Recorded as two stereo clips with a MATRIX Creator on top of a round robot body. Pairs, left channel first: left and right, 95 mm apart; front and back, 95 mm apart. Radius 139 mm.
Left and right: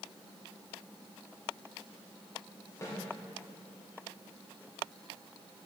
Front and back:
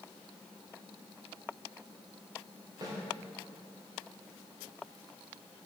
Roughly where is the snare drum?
Behind left.